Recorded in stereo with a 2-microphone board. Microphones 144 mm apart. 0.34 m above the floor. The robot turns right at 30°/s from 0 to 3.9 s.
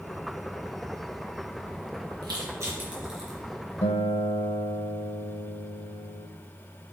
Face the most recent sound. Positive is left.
turn(degrees=40)  # may be behind; listen again after turning